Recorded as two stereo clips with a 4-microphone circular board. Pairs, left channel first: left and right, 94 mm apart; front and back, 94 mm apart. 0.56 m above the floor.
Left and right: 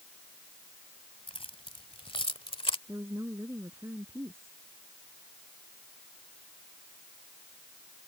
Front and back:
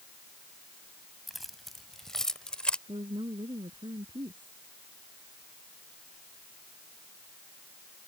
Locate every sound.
1.3 s keys jangling: 90° left; by 2.8 s 80° left
2.9 s a woman speaking: 150° right